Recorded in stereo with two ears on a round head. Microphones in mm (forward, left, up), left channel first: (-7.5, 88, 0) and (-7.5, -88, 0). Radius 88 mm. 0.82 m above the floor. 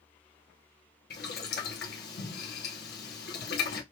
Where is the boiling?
55° left (ahead or behind), 1.0 m.